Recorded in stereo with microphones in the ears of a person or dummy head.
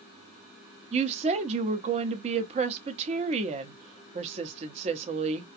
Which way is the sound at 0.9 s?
30° right (ahead or behind).